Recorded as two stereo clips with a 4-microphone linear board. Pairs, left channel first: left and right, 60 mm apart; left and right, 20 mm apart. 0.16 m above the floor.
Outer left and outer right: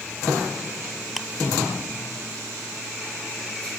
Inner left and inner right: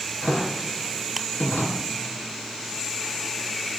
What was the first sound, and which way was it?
Ticking, centre (ahead or behind).